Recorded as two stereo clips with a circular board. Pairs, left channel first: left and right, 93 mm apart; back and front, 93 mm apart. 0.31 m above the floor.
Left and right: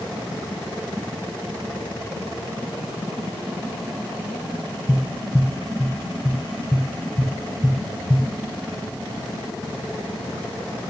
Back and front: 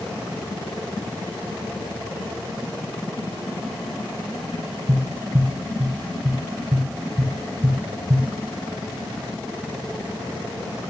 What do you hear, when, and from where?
4.9 s tapping: 15° left, 1.1 m